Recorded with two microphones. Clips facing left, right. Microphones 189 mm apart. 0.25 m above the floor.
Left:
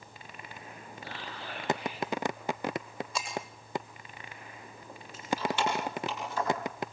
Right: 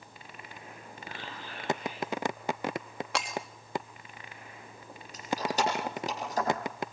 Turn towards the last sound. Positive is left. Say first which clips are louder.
# right 1 dB
turn(degrees=-40)  # may be behind; listen again after turning